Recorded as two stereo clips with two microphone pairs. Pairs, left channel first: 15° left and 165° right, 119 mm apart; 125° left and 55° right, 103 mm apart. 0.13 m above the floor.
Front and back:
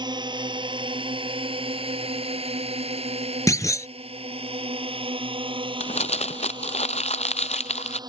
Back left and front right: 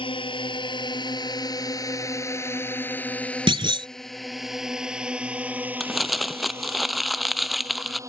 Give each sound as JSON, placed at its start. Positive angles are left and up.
{"t": 0.0, "sound": "a drone", "azimuth_deg": 150}
{"t": 3.5, "sound": "a clunk", "azimuth_deg": -45}
{"t": 5.8, "sound": "crumpling", "azimuth_deg": 35}